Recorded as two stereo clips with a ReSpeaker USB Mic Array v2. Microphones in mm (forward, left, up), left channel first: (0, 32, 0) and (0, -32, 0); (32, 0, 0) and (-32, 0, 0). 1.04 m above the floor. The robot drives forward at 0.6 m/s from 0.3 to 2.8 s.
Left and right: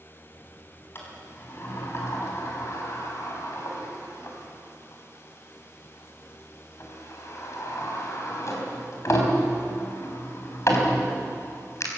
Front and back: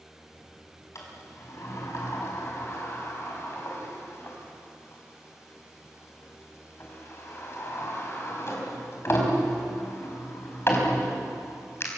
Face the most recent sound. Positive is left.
turn(degrees=50)